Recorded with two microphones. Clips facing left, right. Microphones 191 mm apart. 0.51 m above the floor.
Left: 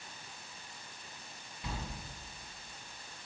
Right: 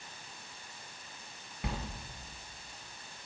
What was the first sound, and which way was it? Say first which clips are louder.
A sliding door: right 4 dB; 60° right (ahead or behind).